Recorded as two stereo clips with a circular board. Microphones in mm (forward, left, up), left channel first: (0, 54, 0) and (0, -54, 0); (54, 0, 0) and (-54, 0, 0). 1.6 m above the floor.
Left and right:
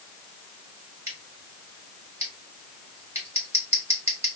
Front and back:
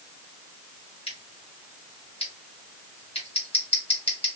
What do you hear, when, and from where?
1.1 s scissors: 25° right, 1.8 m